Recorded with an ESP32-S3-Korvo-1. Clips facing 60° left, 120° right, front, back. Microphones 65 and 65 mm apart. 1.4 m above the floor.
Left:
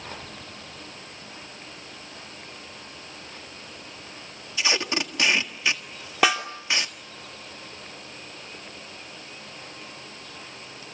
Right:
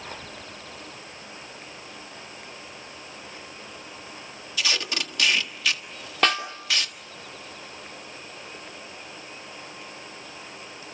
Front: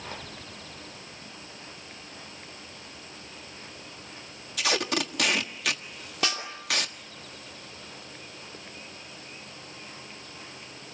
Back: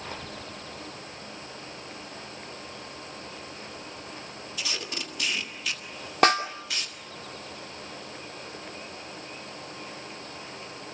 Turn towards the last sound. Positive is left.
turn(degrees=140)